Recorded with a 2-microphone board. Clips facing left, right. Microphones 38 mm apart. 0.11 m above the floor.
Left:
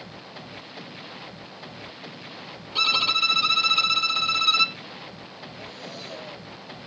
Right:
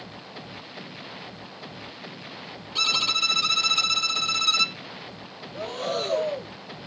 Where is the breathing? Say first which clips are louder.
Right 13 dB; 65° right (ahead or behind).